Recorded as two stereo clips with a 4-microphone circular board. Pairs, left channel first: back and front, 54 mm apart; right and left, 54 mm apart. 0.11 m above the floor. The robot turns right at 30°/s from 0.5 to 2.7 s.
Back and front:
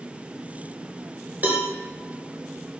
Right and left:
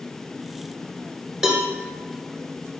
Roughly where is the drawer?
No drawer in this recording.